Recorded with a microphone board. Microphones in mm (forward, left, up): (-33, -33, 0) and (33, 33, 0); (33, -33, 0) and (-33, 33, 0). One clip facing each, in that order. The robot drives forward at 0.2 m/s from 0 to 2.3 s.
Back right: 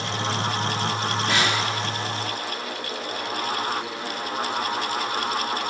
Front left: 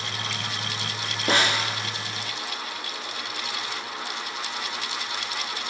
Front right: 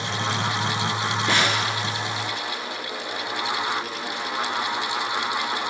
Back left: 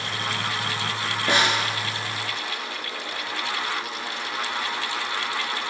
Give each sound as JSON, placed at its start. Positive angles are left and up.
{"t": 1.3, "sound": "a snare drum", "azimuth_deg": 60, "distance_m": 5.5}